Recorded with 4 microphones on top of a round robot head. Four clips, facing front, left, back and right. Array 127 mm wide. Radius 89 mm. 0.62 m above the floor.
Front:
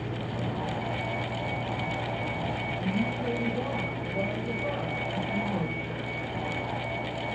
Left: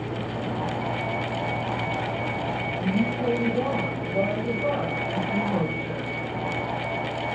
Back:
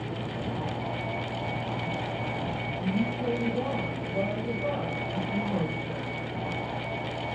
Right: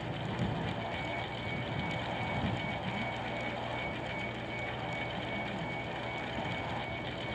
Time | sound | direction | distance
0.0 | a vehicle | 95° left | ?